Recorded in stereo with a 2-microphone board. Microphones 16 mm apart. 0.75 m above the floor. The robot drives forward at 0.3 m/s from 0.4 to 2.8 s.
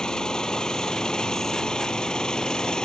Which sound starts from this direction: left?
An engine running, at 0.0 s.